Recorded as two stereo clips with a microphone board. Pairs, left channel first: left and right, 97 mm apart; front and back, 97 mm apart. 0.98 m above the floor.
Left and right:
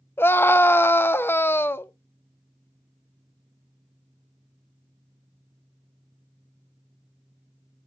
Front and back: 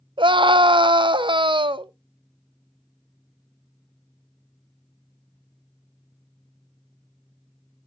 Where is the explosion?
No explosion in this recording.